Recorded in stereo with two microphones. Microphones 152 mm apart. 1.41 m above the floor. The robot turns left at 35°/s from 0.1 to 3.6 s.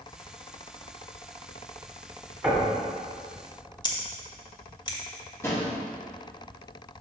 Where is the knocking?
Centre (ahead or behind), 2.5 m; by 2.8 s 15° right (ahead or behind), 2.5 m.